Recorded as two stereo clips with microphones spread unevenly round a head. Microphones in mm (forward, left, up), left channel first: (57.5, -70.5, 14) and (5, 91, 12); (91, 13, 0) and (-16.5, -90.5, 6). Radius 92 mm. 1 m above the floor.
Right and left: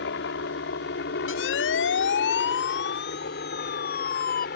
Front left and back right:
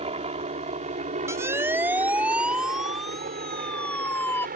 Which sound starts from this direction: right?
A helicopter, at 0.0 s.